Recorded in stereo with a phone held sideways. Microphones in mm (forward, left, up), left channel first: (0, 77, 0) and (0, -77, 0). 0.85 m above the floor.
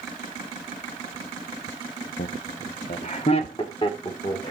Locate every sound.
2.2 s laughter: 70° left (ahead or behind), 0.8 m; by 4.5 s 30° left (ahead or behind), 2.5 m